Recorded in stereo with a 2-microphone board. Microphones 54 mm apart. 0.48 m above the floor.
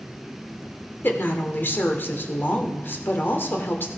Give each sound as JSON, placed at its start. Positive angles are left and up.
{"t": 1.0, "sound": "a woman speaking", "side_deg": 40, "distance_m": 1.3}